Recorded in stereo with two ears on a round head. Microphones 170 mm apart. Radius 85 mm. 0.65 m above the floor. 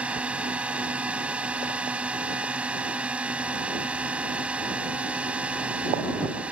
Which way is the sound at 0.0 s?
5° right (ahead or behind).